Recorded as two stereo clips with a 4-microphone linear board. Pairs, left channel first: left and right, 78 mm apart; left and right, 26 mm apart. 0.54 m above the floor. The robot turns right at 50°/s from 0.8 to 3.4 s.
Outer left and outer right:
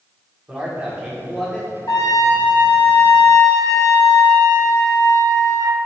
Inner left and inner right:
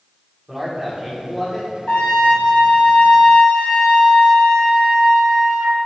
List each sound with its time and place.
0.5 s a man speaking: 30° right, 1.3 m; by 1.7 s 15° left, 1.3 m
1.9 s a trumpet: 50° left, 1.5 m; by 5.8 s 125° left, 1.5 m